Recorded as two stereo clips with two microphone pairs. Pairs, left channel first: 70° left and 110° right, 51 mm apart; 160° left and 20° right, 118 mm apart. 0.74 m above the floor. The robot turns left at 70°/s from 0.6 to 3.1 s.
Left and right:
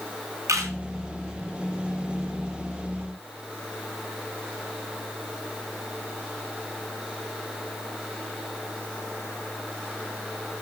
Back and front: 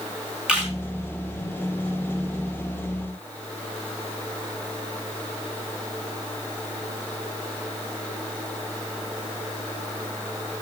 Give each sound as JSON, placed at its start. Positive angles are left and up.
{"t": 0.5, "sound": "a camera shutter", "azimuth_deg": -100, "distance_m": 4.5}